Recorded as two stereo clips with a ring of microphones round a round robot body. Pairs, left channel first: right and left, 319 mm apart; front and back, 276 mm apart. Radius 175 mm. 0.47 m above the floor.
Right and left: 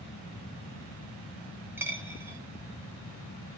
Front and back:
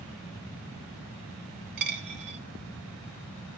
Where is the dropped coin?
175° left, 1.2 m.